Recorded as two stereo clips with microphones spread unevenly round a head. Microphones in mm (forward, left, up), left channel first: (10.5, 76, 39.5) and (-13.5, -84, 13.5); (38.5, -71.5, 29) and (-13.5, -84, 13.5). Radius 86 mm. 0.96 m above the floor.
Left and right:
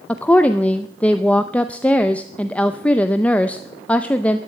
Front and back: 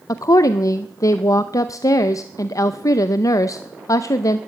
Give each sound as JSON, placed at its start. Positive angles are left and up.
{"t": 0.1, "sound": "a woman speaking", "azimuth_deg": -5, "distance_m": 0.6}